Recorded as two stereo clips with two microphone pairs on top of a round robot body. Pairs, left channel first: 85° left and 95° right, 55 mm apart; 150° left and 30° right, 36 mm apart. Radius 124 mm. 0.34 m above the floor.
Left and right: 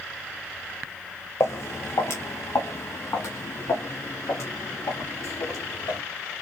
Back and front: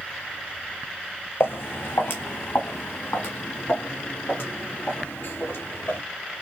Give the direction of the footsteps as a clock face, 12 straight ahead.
8 o'clock.